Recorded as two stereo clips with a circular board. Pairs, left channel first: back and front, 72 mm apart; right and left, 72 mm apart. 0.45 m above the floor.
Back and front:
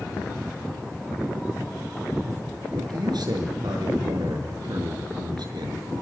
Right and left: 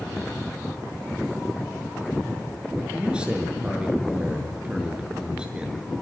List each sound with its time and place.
2.7 s a man speaking: 15° left, 6.5 m